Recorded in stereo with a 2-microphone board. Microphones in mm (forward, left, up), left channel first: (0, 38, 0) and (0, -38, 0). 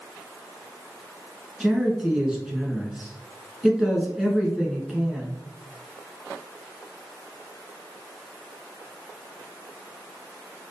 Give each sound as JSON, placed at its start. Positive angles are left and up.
{"t": 1.6, "sound": "a man speaking", "side_deg": -5, "distance_m": 1.3}